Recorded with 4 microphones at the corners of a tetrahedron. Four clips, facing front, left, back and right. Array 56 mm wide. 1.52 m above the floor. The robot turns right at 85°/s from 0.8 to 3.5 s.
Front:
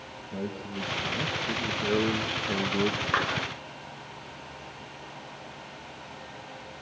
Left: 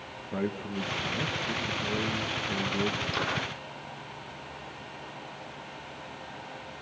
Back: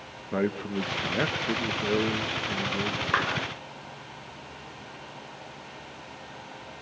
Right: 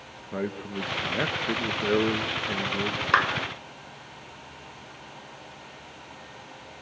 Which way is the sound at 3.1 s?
95° right.